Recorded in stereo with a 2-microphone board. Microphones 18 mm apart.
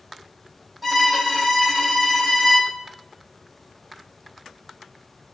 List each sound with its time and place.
0.8 s a violin: 5° right (ahead or behind), 2 m